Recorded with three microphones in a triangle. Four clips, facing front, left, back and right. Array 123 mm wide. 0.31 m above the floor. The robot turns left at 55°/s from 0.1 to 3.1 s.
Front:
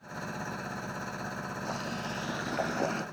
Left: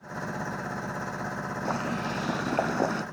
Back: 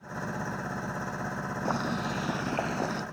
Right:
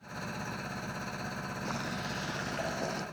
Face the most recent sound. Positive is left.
turn(degrees=75)